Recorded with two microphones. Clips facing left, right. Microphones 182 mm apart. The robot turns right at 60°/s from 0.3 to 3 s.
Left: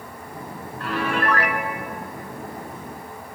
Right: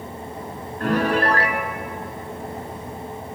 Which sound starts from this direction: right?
A piano, at 0.8 s.